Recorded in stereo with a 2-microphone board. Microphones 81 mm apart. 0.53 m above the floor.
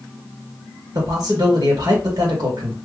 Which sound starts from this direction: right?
A man speaking, at 0.9 s.